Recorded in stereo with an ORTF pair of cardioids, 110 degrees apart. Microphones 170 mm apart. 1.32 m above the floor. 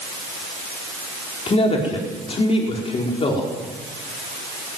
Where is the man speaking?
35° left, 4.5 m.